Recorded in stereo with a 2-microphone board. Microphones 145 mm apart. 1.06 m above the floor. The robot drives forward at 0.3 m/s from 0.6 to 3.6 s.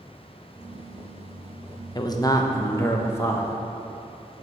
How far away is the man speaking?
About 0.5 m.